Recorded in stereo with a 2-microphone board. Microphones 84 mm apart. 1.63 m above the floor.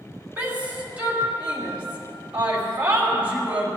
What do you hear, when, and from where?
0.4 s a shout: 20° right (ahead or behind), 3 m